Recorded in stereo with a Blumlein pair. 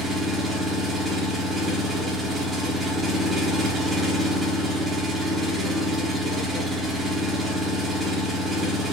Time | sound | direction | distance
0.0 | an engine running | 5° right | 0.7 m